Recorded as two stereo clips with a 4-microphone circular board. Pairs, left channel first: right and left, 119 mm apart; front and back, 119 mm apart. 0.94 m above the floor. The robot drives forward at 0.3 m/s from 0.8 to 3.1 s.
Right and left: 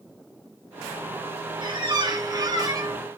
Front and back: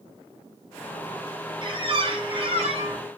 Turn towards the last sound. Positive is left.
turn(degrees=150)